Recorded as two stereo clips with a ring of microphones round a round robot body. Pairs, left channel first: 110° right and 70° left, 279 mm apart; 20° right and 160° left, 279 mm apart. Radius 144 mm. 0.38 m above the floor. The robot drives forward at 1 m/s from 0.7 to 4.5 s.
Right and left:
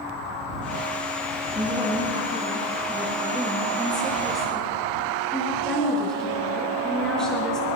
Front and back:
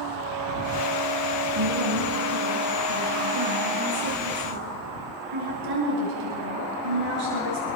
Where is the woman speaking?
140° left, 3.5 m; by 7.7 s 160° left, 6 m.